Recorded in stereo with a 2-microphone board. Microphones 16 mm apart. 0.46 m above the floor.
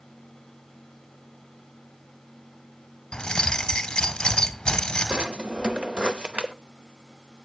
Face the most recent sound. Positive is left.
turn(degrees=-60)  # may be behind; listen again after turning